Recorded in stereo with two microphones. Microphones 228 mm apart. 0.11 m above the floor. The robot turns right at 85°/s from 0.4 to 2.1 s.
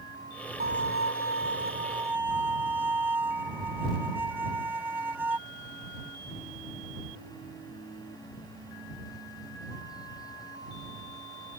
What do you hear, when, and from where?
0.6 s a violin: 135° right; by 5.4 s 10° right